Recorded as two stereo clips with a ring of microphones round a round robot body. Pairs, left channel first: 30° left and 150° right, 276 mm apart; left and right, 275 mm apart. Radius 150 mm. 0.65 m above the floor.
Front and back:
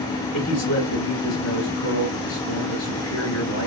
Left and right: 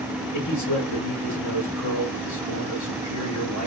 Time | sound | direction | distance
0.3 | a man speaking | 70° left | 3.5 m